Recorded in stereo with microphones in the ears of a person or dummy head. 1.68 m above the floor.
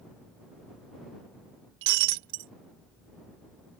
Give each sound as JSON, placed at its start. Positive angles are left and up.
{"t": 1.8, "sound": "breaking glass", "side_deg": -65}